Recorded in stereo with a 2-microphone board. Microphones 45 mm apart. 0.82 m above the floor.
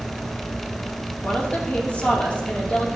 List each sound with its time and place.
1.2 s a woman speaking: 30° left (ahead or behind), 1.9 m